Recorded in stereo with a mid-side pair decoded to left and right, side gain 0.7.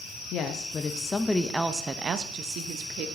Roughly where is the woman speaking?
Ahead left.